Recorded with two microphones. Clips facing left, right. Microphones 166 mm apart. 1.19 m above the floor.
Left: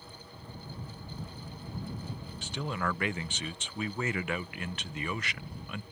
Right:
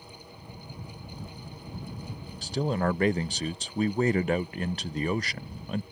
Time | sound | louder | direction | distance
2.4 | a man speaking | right 8 dB | 35° right (ahead or behind) | ?